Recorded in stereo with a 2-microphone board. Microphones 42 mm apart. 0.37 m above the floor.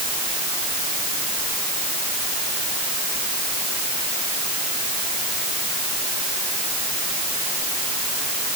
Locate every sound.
Only background noise.